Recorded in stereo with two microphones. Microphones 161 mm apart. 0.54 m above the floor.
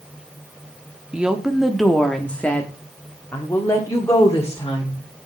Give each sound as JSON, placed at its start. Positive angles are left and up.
{"t": 1.1, "sound": "a woman speaking", "side_deg": -5, "distance_m": 1.1}